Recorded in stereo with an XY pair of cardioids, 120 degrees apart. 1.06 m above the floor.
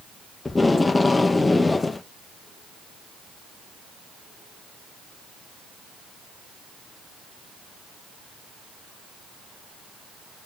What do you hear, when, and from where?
0.5 s tape being pulled: 15° left, 0.5 m